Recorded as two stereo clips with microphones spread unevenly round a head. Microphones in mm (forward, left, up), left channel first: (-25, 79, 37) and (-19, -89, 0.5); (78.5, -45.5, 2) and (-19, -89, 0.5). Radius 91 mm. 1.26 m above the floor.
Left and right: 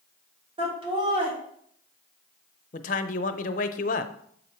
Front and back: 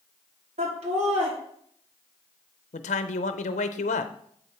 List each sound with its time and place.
0.6 s laughter: 145° right, 3 m
2.7 s a man speaking: 50° left, 0.5 m